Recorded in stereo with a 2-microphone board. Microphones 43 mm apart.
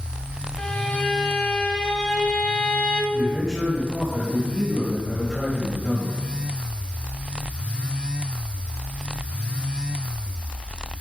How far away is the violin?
About 0.8 m.